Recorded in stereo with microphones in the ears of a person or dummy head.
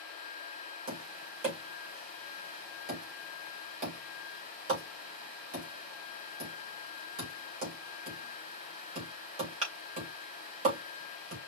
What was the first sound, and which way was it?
Tapping, 35° right (ahead or behind).